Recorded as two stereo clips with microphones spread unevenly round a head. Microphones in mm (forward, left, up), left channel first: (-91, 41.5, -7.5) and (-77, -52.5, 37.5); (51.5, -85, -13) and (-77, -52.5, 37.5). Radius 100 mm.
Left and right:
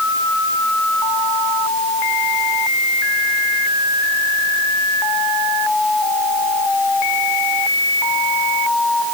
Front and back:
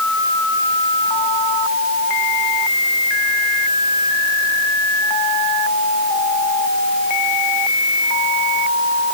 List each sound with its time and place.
Only background noise.